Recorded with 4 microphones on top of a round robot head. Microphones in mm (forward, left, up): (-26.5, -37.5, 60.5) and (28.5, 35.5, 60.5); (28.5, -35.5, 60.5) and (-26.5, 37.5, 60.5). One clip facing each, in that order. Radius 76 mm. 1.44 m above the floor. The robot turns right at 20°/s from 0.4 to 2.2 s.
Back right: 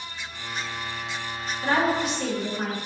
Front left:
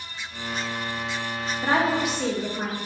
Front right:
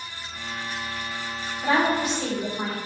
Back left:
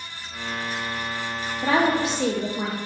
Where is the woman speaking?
125° left, 0.6 m; by 2.8 s 140° left, 0.6 m.